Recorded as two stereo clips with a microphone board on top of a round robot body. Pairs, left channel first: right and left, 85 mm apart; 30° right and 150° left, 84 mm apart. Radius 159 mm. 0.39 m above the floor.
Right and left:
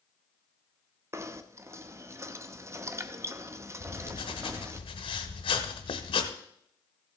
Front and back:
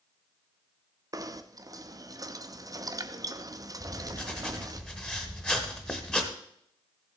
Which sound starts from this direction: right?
Writing, at 3.8 s.